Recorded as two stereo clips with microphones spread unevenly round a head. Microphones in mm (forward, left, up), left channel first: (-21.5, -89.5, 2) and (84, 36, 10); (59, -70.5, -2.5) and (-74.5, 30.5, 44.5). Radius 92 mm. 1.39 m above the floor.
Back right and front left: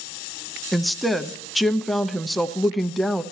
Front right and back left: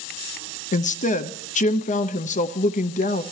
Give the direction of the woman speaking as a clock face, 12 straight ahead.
1 o'clock.